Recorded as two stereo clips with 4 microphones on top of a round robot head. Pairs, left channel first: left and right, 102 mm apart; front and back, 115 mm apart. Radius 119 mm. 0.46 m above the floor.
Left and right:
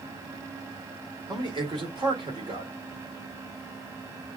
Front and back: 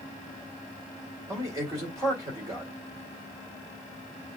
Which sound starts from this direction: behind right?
A man speaking, at 1.3 s.